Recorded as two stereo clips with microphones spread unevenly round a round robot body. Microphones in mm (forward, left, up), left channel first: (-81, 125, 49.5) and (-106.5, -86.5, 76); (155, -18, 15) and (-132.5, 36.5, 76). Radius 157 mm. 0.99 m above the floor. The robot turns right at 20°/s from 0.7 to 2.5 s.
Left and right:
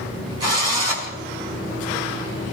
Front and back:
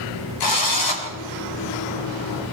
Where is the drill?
20° right, 4.5 m; by 1.1 s 15° right, 4.5 m.